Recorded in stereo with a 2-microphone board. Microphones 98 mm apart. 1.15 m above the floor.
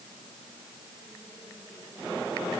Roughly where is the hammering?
No hammering in this recording.